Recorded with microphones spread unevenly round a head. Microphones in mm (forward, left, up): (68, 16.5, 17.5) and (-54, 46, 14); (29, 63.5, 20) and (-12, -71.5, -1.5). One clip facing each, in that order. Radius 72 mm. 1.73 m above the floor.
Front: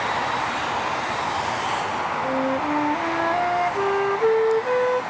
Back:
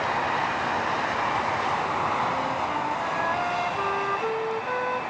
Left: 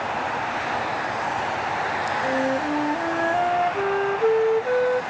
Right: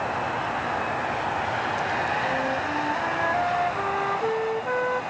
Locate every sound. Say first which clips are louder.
2.2 s a flute: front 4 dB, left 4 dB; 25° left